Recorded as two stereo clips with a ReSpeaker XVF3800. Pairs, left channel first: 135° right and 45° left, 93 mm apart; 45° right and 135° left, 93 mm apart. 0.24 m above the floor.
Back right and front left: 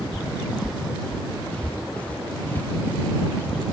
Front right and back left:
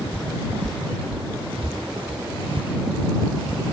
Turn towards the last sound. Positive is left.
turn(degrees=160)